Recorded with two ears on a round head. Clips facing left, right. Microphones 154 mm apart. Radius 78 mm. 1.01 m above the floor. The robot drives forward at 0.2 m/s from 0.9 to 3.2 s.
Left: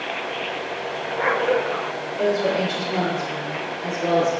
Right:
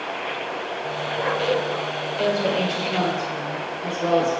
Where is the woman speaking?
20° left (ahead or behind), 1.8 m; by 4.3 s 15° left (ahead or behind), 2.0 m.